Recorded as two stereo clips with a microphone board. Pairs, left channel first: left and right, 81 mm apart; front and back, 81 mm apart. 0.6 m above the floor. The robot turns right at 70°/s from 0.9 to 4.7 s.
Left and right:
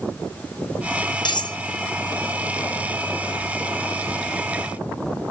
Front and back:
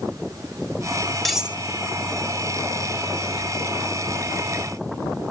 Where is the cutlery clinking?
85° left, 0.6 m; by 1.6 s 110° left, 0.6 m.